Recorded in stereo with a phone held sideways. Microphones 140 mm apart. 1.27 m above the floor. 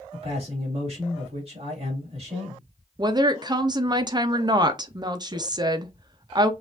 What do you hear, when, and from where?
0.1 s a man speaking: 45° right (ahead or behind), 2.5 m
3.0 s a woman speaking: 30° right (ahead or behind), 0.6 m